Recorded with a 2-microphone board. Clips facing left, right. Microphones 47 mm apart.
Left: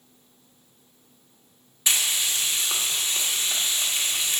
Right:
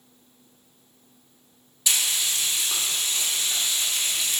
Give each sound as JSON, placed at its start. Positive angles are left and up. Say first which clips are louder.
{"t": 1.9, "sound": "frying", "louder": "left 1 dB", "side_deg": 35, "distance_m": 1.3}